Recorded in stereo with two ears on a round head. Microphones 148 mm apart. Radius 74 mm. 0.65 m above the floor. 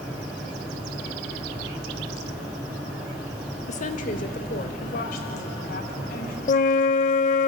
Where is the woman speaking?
45° left (ahead or behind), 1.2 m; by 6.4 s 65° left (ahead or behind), 4.5 m.